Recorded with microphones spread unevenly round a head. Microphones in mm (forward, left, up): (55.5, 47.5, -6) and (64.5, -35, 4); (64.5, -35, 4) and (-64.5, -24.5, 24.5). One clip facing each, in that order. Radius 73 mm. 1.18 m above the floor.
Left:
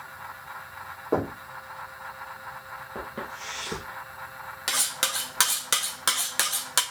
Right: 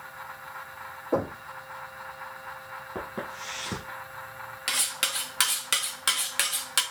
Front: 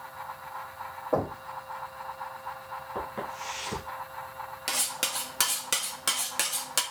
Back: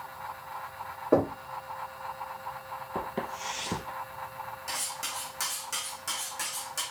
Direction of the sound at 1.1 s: 155° left.